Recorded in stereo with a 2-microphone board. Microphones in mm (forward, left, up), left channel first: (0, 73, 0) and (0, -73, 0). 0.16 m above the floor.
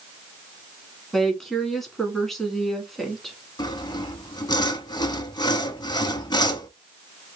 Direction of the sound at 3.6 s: 30° left (ahead or behind).